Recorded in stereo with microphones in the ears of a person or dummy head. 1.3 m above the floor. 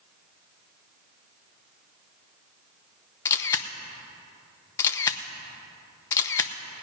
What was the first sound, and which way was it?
A camera shutter, 15° left (ahead or behind).